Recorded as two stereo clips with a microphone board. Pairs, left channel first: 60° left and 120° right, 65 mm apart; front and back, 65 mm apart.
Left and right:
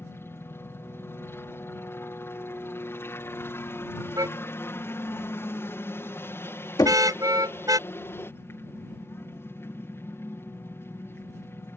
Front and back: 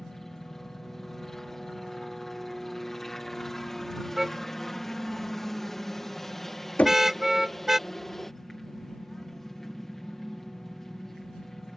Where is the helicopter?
85° left.